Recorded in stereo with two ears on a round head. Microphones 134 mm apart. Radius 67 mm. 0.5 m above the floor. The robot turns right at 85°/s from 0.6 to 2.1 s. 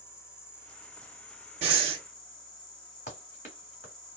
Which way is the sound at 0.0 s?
20° left.